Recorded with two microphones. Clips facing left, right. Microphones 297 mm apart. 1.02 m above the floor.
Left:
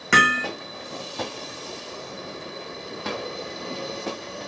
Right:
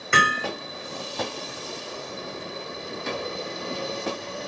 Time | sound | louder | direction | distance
0.1 | hammering | left 3 dB | 85° left | 2.5 m
3.0 | a drawer | even | 75° left (ahead or behind) | 4 m